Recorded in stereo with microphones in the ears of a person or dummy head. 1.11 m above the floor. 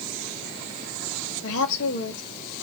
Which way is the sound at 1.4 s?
70° left (ahead or behind).